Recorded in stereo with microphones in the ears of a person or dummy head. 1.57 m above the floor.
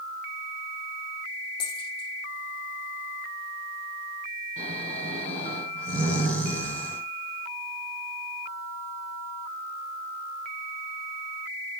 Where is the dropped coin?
30° left (ahead or behind), 5 m.